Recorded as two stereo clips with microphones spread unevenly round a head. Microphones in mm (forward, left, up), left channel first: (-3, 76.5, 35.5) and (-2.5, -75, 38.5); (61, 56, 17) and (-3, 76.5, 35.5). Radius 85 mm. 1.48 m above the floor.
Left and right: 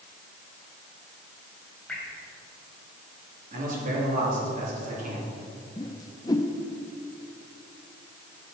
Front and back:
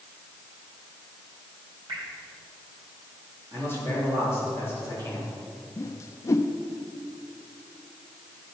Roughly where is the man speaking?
Behind right.